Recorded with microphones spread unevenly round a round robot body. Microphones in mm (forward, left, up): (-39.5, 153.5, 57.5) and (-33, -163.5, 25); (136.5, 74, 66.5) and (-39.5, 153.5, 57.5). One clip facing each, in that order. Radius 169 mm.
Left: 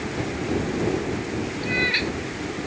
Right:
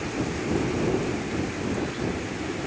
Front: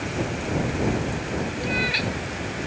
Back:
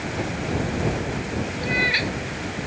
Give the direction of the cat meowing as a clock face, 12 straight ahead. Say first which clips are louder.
Left 1 dB, back 1 dB; 9 o'clock.